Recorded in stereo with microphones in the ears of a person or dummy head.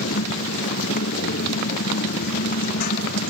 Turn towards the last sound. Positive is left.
turn(degrees=50)  # may be behind; listen again after turning